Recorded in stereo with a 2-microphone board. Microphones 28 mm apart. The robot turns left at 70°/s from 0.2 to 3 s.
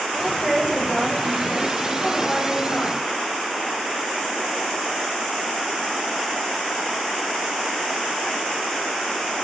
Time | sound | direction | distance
0.2 | a woman speaking | 20° right (ahead or behind) | 0.9 m